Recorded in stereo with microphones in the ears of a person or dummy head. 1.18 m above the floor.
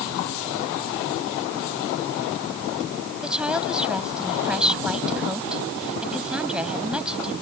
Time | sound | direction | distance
3.2 | a woman speaking | 5° right (ahead or behind) | ?